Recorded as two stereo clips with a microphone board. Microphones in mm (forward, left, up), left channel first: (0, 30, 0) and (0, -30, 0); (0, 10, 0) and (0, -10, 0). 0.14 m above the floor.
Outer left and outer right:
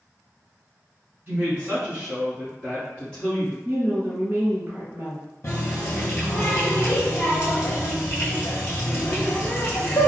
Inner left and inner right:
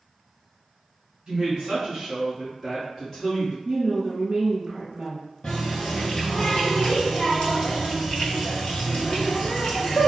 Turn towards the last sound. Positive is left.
turn(degrees=45)  # may be behind; listen again after turning